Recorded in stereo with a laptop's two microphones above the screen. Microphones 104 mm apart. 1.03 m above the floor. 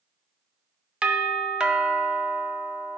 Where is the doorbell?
10° right (ahead or behind), 0.6 m.